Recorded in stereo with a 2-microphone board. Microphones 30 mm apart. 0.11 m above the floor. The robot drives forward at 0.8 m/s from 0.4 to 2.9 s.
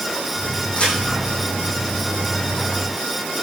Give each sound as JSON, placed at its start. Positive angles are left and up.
{"t": 0.7, "sound": "a crack", "side_deg": 40, "distance_m": 5.0}